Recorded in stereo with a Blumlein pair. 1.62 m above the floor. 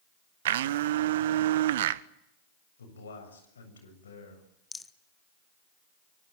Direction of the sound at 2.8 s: 70° left.